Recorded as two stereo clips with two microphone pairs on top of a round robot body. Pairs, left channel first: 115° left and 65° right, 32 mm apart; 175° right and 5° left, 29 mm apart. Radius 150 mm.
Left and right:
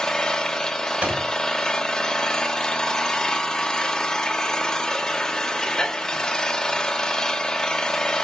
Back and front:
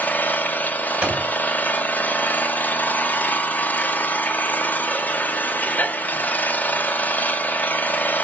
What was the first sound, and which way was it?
An engine running, 175° right.